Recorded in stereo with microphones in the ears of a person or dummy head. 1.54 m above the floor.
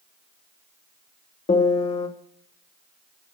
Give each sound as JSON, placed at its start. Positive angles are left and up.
{"t": 1.5, "sound": "a piano", "side_deg": 40, "distance_m": 0.8}